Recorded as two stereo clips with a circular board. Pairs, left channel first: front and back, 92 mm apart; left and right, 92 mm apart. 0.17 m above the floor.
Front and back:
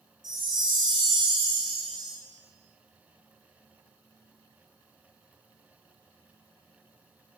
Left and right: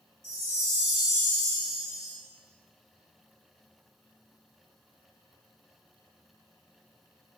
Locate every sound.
0.2 s a chime: 150° right, 1.8 m